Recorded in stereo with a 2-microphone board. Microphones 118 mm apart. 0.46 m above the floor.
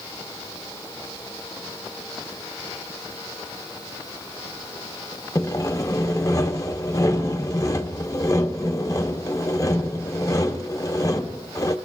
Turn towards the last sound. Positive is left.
turn(degrees=30)  # may be behind; listen again after turning